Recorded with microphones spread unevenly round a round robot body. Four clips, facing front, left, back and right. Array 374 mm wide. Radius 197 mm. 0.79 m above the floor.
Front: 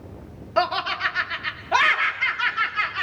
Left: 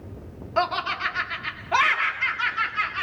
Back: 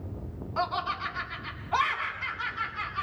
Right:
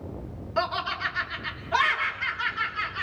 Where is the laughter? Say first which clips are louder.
Left 3 dB, front 7 dB; 20° left, 2.5 m.